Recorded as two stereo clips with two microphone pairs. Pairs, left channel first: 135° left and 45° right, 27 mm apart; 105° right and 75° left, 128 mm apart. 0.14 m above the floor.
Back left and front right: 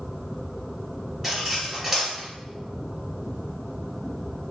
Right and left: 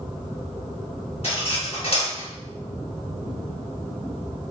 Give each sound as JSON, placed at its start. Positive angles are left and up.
{"t": 1.2, "sound": "cutlery clinking", "azimuth_deg": -130, "distance_m": 1.5}